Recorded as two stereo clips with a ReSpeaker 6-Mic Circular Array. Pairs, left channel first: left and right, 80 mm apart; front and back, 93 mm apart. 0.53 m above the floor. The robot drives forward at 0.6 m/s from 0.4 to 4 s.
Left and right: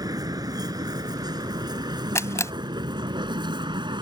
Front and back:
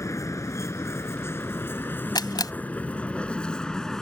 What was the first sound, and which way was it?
A vehicle, 55° right.